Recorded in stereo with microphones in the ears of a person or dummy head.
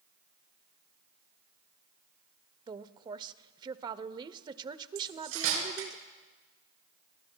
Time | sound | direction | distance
2.7 | a woman speaking | 25° right (ahead or behind) | 0.6 m
5.0 | cutlery clinking | 80° right | 7.5 m